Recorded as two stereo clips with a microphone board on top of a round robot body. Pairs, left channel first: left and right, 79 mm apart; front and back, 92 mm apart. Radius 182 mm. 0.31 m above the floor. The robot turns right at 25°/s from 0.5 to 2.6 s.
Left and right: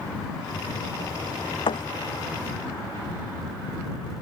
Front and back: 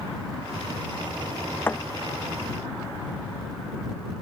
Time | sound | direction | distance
1.7 | a thud | 70° left | ?